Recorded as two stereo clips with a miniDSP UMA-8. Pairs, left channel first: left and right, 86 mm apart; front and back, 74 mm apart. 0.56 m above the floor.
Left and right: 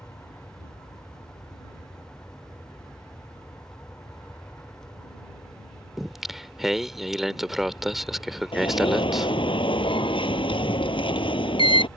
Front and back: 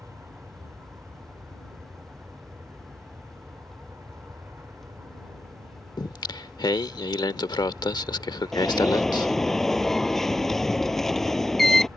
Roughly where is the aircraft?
Behind left.